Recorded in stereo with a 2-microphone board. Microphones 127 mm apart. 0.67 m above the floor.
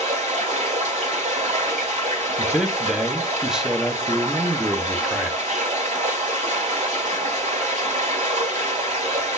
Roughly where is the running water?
Right.